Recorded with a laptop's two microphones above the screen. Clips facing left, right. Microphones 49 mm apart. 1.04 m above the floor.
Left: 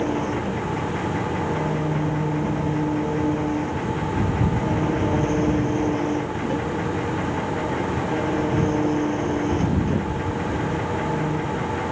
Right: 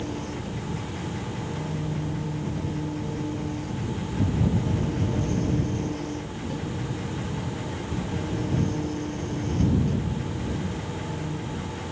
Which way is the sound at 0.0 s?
40° left (ahead or behind).